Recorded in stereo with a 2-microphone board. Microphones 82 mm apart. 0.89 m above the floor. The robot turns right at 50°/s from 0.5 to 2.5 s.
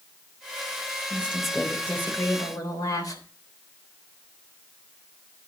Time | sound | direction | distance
1.1 | a woman speaking | 20° right | 3 m